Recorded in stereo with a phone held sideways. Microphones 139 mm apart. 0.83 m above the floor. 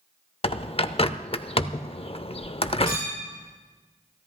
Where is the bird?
45° left (ahead or behind), 0.6 m.